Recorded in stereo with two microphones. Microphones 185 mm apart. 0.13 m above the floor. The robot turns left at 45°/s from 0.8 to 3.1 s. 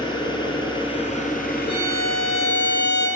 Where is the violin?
30° left, 2.5 m; by 3.1 s 30° right, 2.5 m.